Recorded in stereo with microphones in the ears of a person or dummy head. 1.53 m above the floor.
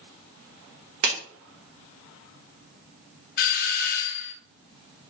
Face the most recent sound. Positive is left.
turn(degrees=50)  # may be behind; listen again after turning